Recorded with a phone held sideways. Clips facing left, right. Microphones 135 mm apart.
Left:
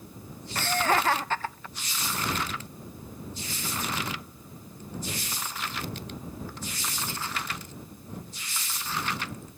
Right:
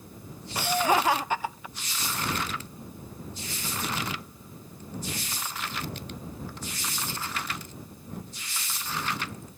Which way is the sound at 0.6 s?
10° right (ahead or behind).